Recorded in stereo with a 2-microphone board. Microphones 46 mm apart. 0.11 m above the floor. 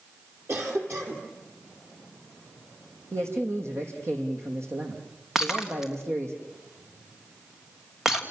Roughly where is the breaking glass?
Centre.